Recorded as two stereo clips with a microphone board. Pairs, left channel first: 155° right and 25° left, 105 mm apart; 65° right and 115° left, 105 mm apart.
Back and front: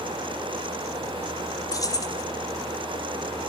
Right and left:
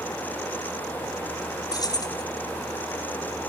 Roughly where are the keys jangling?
Right.